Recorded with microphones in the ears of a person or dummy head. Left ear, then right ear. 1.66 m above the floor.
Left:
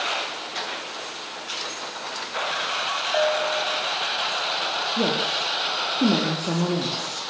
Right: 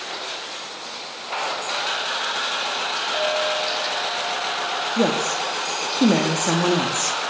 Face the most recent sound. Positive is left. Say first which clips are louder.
# right 3 dB
turn(degrees=-55)  # may be behind; listen again after turning